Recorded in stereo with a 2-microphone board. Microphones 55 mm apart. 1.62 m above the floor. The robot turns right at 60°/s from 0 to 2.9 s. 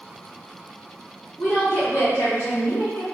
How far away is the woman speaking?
About 1.5 m.